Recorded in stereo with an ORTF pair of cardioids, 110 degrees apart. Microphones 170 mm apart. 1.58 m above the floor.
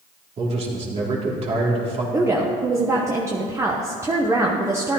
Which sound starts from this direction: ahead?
A woman speaking, at 2.1 s.